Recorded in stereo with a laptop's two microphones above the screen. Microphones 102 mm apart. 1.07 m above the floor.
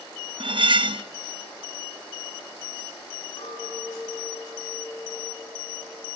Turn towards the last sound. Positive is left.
turn(degrees=75)  # may be behind; listen again after turning